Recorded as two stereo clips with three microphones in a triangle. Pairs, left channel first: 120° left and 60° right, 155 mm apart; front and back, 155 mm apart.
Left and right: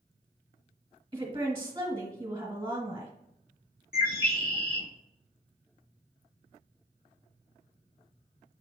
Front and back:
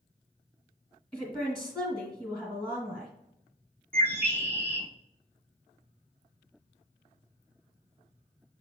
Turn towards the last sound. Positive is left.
turn(degrees=105)